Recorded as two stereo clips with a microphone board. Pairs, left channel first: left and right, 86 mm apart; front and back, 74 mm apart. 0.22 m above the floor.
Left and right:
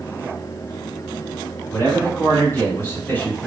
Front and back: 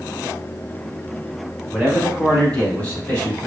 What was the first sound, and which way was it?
A man speaking, 85° left.